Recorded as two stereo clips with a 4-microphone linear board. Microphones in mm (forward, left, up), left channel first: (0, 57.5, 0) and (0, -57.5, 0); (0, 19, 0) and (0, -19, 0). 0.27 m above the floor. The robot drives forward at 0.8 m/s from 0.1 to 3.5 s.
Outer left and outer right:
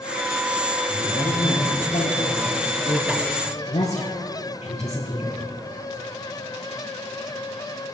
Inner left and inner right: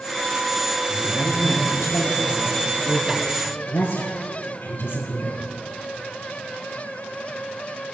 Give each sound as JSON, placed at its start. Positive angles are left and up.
{"t": 0.9, "sound": "a woman speaking", "side_deg": 60, "distance_m": 5.5}